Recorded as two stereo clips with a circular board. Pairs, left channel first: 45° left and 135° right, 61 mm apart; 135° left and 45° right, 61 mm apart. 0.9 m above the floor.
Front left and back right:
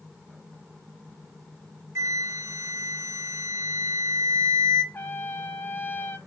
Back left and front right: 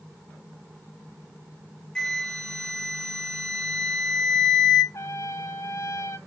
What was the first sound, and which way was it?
A flute, 150° right.